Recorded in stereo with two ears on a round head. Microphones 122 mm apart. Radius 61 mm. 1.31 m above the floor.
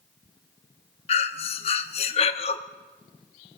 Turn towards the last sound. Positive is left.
turn(degrees=45)  # may be behind; listen again after turning